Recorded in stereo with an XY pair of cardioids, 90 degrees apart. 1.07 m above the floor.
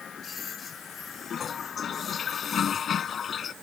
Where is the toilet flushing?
55° left.